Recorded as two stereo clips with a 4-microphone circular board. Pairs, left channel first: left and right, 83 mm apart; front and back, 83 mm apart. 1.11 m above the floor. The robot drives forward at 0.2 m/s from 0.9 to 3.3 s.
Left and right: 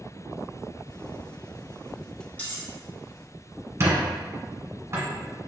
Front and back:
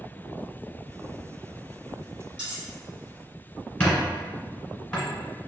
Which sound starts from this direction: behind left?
Cutlery clinking, at 2.4 s.